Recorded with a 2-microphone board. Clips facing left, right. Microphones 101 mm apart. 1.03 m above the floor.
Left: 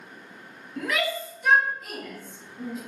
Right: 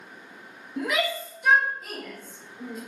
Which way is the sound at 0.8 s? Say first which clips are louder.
Right 1 dB; 20° right (ahead or behind).